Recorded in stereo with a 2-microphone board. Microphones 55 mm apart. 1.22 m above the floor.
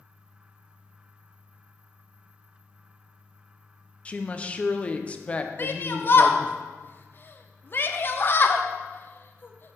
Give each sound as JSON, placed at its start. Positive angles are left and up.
{"t": 4.0, "sound": "a woman speaking", "side_deg": 25, "distance_m": 0.5}
{"t": 5.6, "sound": "a shout", "side_deg": 40, "distance_m": 0.7}